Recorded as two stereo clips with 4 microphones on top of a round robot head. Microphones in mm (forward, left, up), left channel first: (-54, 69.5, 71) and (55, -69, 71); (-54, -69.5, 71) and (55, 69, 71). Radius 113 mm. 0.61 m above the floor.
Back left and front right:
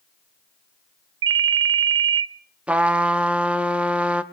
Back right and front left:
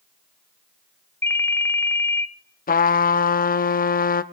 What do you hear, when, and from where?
1.2 s a ringtone: 50° right, 0.6 m
2.7 s a trumpet: 135° right, 0.8 m